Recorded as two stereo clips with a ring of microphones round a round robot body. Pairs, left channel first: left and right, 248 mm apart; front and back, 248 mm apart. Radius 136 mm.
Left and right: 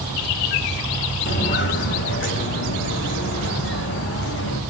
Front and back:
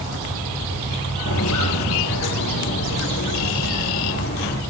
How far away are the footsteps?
About 4 m.